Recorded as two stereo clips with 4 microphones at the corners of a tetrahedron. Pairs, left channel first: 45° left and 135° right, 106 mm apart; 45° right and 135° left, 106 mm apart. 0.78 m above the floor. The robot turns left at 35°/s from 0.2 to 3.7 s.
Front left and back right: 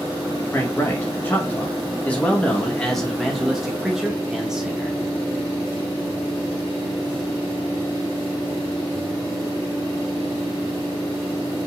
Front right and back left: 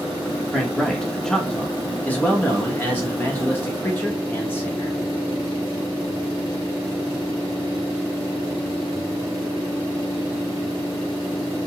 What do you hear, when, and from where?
0.5 s a man speaking: 50° left, 1.0 m; by 5.0 s 60° right, 1.0 m